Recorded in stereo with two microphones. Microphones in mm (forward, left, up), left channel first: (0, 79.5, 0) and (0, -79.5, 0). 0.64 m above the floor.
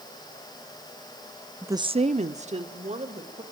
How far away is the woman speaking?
About 0.6 m.